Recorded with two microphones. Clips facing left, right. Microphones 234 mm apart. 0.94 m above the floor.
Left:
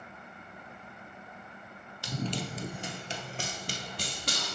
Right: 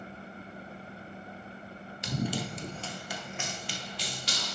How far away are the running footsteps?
About 1.0 m.